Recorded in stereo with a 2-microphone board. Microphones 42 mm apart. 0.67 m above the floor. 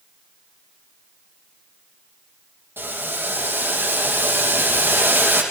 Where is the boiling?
60° right (ahead or behind), 6 m.